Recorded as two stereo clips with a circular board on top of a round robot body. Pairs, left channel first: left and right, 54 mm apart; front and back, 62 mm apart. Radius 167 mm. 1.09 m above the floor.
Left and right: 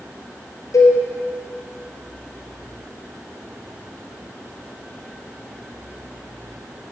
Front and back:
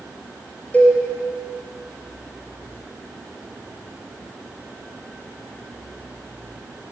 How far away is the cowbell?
About 1.4 m.